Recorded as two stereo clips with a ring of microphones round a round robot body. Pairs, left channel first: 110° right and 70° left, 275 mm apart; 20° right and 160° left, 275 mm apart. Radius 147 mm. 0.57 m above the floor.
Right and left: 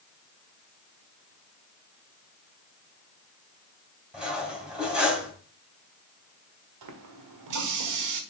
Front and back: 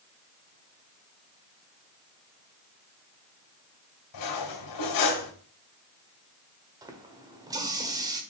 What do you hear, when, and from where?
4.1 s cutlery clinking: 20° right, 2 m
6.8 s a running tap: 80° left, 1.3 m